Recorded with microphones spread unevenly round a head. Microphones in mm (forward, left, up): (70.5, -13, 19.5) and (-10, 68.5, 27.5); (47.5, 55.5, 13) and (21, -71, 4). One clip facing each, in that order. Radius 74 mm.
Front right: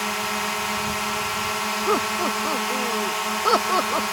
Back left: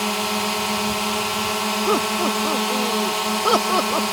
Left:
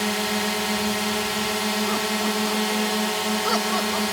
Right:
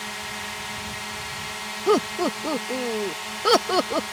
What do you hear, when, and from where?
0.0 s a drone: 70° left
1.9 s laughter: 145° right